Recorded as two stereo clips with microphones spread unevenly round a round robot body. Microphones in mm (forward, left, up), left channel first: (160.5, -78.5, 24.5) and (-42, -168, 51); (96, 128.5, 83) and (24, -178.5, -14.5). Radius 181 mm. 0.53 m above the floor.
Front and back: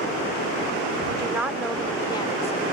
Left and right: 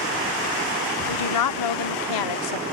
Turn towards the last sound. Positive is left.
turn(degrees=75)